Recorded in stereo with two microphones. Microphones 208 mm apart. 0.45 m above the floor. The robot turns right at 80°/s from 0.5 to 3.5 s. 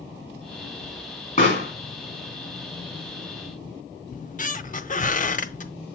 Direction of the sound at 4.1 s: 40° left (ahead or behind).